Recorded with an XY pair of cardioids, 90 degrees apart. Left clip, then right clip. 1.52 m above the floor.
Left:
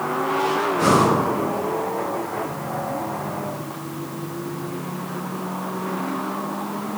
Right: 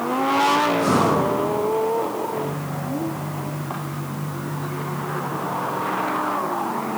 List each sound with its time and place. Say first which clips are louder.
0.8 s breathing: left 1 dB; 50° left, 1.4 m